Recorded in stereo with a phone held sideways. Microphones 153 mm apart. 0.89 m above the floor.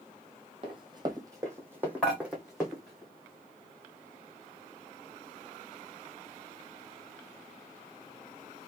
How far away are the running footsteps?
About 1.2 m.